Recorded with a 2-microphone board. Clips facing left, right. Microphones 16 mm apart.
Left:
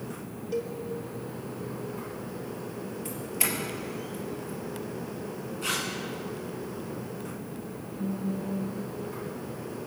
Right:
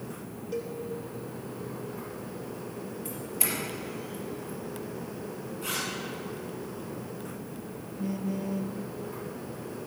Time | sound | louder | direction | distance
0.5 | a cowbell | left 3 dB | 5° left (ahead or behind) | 1.8 m
3.0 | a doorbell | left 2 dB | 35° left (ahead or behind) | 3.5 m
5.6 | tearing paper | left 3 dB | 35° left (ahead or behind) | 5.5 m
8.0 | a phone buzzing | even | 55° right (ahead or behind) | 0.8 m